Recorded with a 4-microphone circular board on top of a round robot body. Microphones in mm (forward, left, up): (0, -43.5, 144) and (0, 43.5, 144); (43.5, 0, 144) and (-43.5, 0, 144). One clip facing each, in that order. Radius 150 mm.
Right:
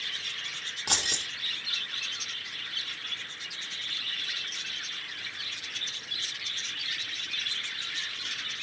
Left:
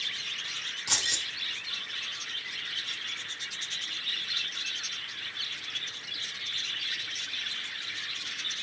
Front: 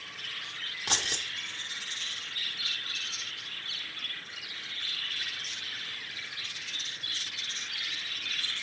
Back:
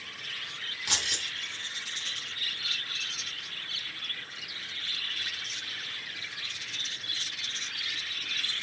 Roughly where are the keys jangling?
Ahead right.